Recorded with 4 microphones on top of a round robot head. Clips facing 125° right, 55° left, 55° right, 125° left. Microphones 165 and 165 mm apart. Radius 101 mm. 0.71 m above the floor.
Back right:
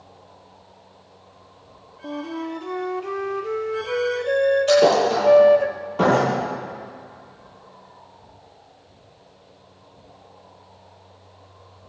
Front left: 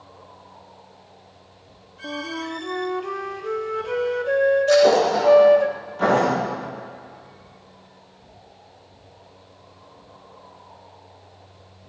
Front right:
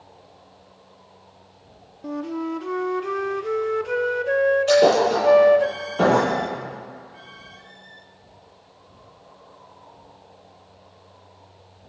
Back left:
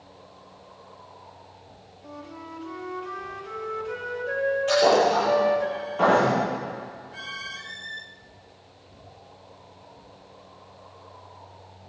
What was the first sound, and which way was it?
A flute, 40° right.